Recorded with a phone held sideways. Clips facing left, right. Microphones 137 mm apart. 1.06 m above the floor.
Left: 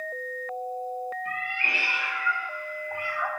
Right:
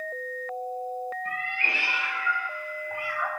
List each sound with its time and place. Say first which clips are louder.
1.2 s a cat meowing: even; 35° right (ahead or behind), 2 m; by 3.3 s 10° right (ahead or behind), 2.5 m